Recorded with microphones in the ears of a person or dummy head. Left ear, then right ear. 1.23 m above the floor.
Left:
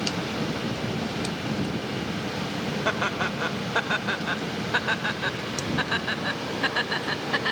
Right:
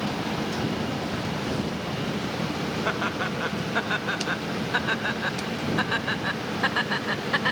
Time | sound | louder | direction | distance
2.9 | laughter | left 2 dB | 15° left (ahead or behind) | ?